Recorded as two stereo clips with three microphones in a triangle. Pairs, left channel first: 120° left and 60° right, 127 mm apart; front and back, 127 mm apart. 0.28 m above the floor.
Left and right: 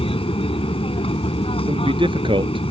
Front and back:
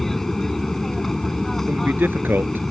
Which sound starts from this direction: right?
A man speaking, at 1.7 s.